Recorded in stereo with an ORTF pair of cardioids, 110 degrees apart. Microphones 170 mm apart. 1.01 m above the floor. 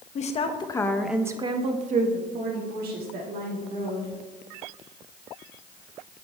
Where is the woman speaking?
45° left, 1.0 m; by 4.1 s 75° right, 2.5 m.